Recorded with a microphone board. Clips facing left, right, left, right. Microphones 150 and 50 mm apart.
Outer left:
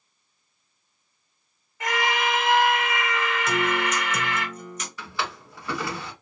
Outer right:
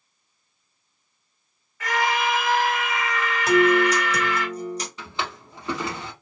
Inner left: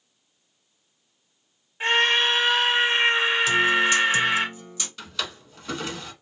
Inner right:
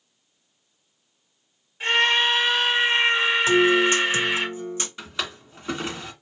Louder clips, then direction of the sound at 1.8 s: Outer right 2 dB, even; 25° left (ahead or behind).